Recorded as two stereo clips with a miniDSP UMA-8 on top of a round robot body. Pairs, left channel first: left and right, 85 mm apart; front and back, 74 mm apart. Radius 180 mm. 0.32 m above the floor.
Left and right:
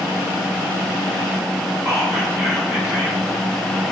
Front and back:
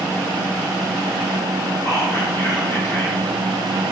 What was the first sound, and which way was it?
Whispering, 45° left.